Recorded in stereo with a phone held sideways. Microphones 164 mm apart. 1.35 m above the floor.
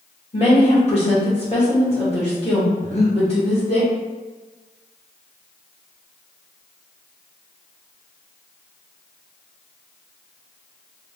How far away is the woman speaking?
About 1.9 m.